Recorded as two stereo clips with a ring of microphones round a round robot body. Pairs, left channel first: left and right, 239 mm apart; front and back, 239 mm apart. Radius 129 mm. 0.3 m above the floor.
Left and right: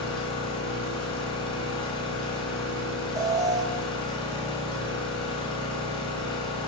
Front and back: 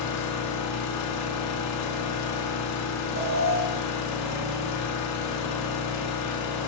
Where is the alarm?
165° right, 1.4 m.